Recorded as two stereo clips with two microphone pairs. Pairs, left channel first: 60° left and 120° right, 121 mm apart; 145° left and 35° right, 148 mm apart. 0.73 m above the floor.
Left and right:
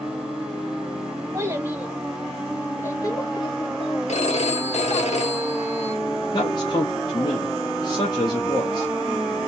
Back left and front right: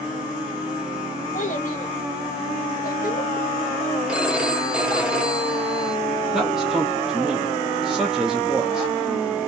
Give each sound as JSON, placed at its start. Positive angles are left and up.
{"t": 1.3, "sound": "a child speaking", "azimuth_deg": 175, "distance_m": 1.2}
{"t": 4.1, "sound": "a phone ringing", "azimuth_deg": 45, "distance_m": 1.1}
{"t": 6.3, "sound": "a man speaking", "azimuth_deg": 50, "distance_m": 1.2}